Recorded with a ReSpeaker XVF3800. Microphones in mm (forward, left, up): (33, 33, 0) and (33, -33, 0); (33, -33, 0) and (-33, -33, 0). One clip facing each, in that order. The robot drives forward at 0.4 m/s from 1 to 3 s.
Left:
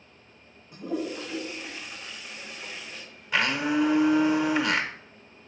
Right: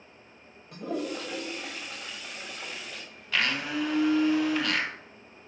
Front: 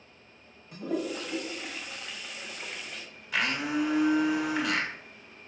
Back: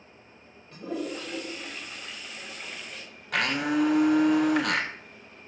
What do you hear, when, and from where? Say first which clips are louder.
0.7 s a toilet flushing: left 1 dB, front 1 dB; 80° right, 5.5 m; by 3.0 s 90° right, 5.5 m
3.3 s a blender: left 4 dB, back 3 dB; 160° left, 1.5 m